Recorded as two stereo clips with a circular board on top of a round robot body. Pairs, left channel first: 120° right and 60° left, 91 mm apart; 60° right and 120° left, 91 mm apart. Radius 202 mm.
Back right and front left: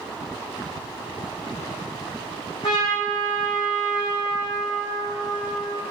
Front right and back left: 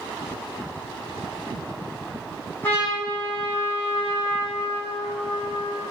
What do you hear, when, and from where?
2.6 s a trumpet: 130° right, 3.5 m